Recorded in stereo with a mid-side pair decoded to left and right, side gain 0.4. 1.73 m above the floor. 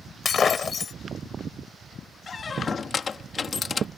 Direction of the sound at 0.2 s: 50° left.